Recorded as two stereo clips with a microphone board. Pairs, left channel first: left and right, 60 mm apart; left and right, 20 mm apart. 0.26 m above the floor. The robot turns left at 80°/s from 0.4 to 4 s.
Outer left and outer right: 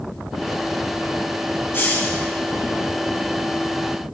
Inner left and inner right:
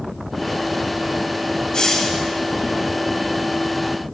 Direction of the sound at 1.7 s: 75° left.